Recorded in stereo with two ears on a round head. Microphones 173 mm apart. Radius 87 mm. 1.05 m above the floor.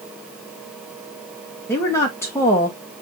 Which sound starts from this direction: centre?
A woman speaking, at 1.7 s.